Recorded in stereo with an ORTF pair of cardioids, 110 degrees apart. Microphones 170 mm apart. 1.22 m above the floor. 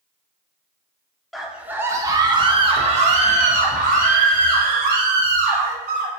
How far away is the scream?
About 1.2 m.